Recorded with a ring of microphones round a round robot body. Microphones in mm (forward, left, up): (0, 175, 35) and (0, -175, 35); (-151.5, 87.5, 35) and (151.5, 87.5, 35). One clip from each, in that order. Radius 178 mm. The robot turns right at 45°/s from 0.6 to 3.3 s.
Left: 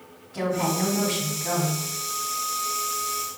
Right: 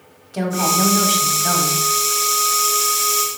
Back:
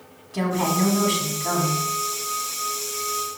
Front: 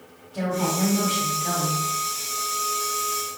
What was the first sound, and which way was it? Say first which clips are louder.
A woman speaking: right 6 dB, back 2 dB; 125° right.